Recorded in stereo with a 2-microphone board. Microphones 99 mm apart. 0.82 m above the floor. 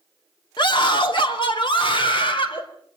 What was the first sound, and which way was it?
A scream, 50° left (ahead or behind).